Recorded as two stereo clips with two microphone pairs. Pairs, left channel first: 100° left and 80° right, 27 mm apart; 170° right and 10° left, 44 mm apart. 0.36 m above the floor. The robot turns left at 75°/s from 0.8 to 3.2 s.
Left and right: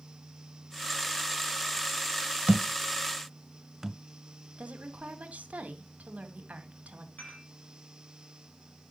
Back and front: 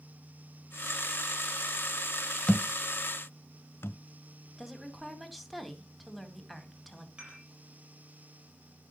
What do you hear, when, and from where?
2.5 s a thud: 105° right, 0.6 m; by 4.0 s 160° right, 0.6 m
4.6 s a woman speaking: 80° right, 2 m
7.2 s dishes clattering: 80° left, 8 m